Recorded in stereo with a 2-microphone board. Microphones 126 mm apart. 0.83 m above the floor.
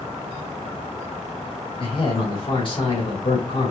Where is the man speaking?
40° left (ahead or behind), 2 m.